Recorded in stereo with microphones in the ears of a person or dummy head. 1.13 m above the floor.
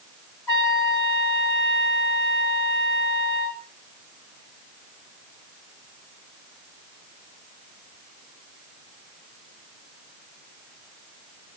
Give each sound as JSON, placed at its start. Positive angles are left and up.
{"t": 0.5, "sound": "a trumpet", "side_deg": 10, "distance_m": 1.0}